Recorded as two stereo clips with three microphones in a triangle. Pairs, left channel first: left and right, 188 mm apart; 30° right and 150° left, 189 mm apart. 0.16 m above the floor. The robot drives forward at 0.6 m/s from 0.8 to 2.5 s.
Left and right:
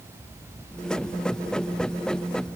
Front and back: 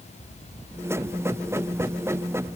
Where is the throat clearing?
No throat clearing in this recording.